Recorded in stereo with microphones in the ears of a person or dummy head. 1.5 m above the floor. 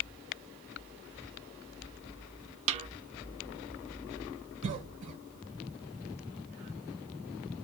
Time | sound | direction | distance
2.7 | a snare drum | 40° right (ahead or behind) | 0.8 m
4.6 | a cough | 30° right (ahead or behind) | 1.1 m